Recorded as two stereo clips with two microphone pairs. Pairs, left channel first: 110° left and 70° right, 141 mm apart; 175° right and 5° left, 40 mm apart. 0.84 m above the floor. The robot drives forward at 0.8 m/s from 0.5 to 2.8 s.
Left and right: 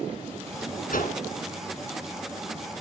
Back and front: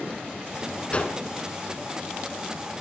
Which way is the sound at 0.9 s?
125° left.